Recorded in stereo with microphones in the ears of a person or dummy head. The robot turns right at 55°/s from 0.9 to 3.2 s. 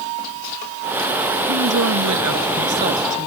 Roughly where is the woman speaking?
Behind right.